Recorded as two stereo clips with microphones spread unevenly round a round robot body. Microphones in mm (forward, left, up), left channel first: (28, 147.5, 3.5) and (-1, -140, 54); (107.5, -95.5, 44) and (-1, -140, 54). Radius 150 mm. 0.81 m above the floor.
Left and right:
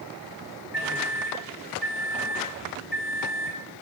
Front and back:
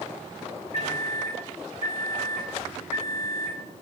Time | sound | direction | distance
0.7 | a microwave | straight ahead | 3.5 m